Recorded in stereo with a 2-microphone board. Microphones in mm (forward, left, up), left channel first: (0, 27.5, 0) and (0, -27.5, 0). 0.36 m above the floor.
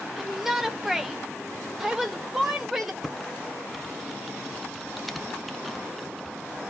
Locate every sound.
0.2 s a shout: 5° right (ahead or behind), 1.2 m; by 2.9 s 10° right (ahead or behind), 1.2 m
3.0 s typing on a keyboard: 5° left (ahead or behind), 0.9 m